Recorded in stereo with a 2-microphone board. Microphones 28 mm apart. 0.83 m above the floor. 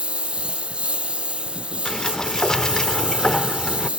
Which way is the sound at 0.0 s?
40° right (ahead or behind).